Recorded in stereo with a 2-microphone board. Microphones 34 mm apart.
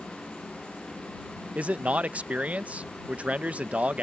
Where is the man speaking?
45° right (ahead or behind).